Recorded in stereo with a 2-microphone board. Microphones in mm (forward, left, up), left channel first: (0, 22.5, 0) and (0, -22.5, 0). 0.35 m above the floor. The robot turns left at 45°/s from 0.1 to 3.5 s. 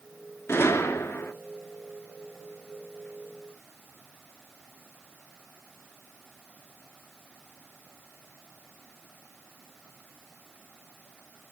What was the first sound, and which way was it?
A gunshot, 105° left.